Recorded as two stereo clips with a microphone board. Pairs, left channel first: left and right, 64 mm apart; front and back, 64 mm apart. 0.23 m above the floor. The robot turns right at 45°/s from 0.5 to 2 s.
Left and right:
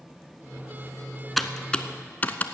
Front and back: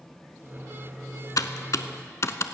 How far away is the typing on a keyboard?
About 0.6 m.